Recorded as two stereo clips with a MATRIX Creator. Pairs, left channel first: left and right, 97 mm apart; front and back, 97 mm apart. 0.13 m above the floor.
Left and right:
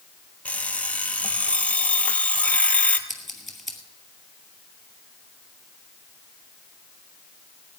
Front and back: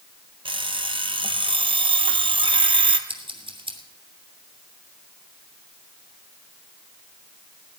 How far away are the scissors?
About 2.5 m.